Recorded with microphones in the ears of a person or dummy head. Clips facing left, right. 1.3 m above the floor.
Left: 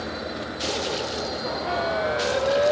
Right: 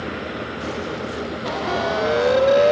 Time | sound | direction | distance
0.0 | a fan | 45° right (ahead or behind) | ?
1.7 | a siren | 65° right (ahead or behind) | ?